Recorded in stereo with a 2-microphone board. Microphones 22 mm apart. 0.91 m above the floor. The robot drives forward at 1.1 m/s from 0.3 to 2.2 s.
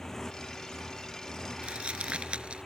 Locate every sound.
0.0 s a motorcycle: 20° left (ahead or behind); by 2.7 s 15° left (ahead or behind)
1.6 s crumpling: 70° right (ahead or behind); by 2.6 s 65° right (ahead or behind)